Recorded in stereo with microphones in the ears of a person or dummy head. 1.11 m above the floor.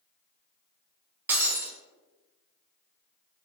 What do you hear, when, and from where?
1.3 s breaking glass: 5° right (ahead or behind), 0.8 m